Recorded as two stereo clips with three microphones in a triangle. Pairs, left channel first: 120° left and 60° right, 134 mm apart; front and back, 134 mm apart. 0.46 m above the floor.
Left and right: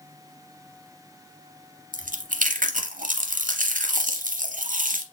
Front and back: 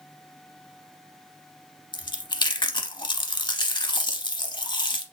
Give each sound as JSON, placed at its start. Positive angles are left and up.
{"t": 1.9, "sound": "chewing", "azimuth_deg": -55, "distance_m": 0.7}